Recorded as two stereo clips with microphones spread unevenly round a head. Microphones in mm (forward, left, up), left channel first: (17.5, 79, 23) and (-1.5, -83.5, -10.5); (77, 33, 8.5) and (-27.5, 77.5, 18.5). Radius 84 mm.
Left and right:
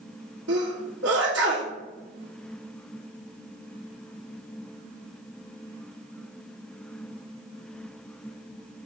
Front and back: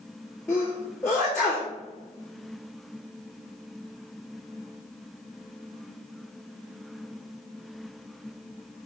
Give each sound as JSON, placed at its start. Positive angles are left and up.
{"t": 0.5, "sound": "a sneeze", "azimuth_deg": -110, "distance_m": 2.5}